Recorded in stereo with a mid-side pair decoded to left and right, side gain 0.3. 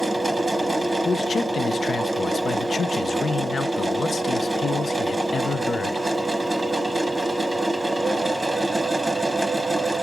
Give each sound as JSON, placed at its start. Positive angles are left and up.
{"t": 0.0, "sound": "a machine running", "azimuth_deg": -15, "distance_m": 0.9}
{"t": 1.1, "sound": "a man speaking", "azimuth_deg": 60, "distance_m": 0.6}